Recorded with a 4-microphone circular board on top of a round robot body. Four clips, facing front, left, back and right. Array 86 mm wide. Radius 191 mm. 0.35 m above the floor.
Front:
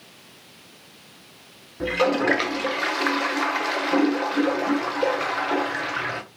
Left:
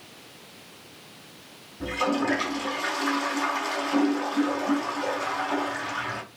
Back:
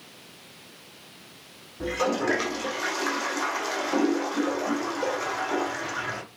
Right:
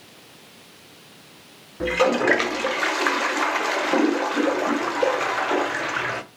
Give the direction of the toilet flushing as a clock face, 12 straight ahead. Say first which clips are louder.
Right 6 dB, front 5 dB; 2 o'clock.